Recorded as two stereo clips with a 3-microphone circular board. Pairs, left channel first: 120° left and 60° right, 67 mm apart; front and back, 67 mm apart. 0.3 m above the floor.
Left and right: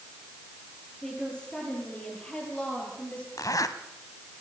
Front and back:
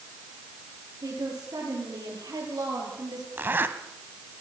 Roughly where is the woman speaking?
Behind.